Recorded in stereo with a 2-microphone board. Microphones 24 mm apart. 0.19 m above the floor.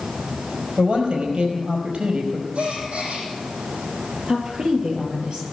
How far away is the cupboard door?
I don't hear a cupboard door.